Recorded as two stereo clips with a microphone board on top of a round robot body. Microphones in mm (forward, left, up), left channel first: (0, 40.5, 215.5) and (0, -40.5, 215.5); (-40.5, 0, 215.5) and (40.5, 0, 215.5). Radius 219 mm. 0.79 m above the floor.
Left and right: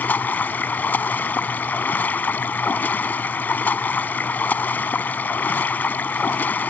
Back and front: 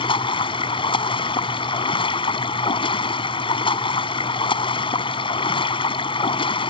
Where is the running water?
160° left.